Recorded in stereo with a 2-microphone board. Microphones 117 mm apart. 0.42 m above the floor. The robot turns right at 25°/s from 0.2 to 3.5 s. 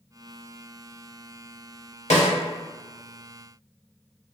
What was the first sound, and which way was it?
A snare drum, 75° left (ahead or behind).